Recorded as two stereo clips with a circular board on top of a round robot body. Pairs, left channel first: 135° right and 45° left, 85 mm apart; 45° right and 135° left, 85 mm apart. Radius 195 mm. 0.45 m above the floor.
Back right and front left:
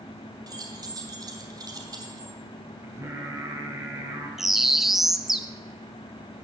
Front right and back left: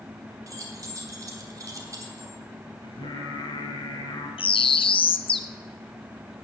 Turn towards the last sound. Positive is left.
turn(degrees=-40)